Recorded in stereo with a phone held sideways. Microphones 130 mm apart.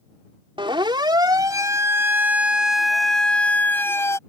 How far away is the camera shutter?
No camera shutter in this recording.